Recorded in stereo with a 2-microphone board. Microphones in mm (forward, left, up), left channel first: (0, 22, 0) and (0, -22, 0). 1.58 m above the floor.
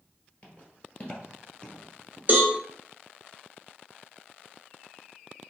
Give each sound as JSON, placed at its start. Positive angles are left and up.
{"t": 0.4, "sound": "footsteps", "side_deg": 30, "distance_m": 1.9}
{"t": 2.3, "sound": "a cowbell", "side_deg": -35, "distance_m": 1.1}